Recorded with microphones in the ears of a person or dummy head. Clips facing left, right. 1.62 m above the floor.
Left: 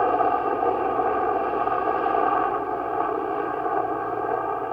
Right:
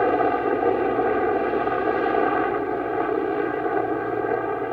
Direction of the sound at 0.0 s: 20° right (ahead or behind).